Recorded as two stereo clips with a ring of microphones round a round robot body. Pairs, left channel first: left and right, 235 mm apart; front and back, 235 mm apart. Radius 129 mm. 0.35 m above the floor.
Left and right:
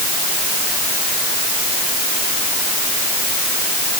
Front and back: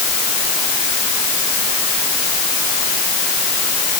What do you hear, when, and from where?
Only background noise.